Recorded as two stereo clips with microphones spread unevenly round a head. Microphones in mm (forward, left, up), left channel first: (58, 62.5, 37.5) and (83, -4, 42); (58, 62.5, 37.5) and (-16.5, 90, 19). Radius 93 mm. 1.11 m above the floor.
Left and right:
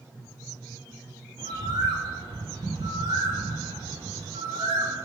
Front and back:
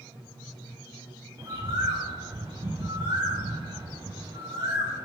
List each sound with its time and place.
1.4 s a bird: 125° right, 1.2 m